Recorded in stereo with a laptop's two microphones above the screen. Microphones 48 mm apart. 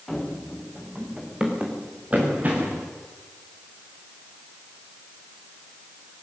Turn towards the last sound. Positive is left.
turn(degrees=-40)  # may be behind; listen again after turning